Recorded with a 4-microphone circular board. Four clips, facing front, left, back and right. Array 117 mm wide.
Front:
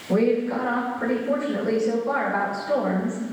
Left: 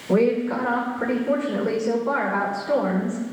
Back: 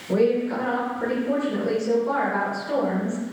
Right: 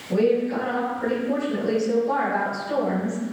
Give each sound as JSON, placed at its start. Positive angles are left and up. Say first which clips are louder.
{"t": 0.1, "sound": "a woman speaking", "louder": "left 1 dB, even", "azimuth_deg": 90, "distance_m": 9.5}